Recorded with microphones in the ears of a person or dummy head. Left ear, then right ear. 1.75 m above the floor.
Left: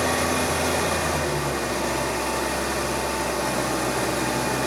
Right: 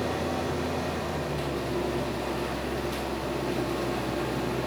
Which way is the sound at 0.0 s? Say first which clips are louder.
Left 7 dB; 55° left (ahead or behind).